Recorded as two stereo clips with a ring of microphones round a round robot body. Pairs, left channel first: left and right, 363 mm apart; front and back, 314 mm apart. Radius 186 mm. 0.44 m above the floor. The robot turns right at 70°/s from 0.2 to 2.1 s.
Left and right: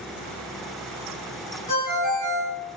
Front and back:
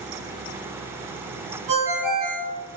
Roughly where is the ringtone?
Behind.